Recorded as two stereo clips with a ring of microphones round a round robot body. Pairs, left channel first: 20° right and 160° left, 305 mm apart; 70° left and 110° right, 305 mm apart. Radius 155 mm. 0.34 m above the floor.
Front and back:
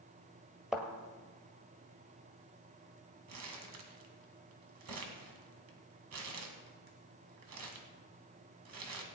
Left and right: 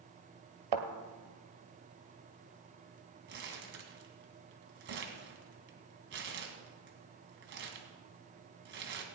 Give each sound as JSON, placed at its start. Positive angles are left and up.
{"t": 0.7, "sound": "a thud", "azimuth_deg": -115, "distance_m": 1.5}
{"t": 3.3, "sound": "crumpling", "azimuth_deg": -165, "distance_m": 1.9}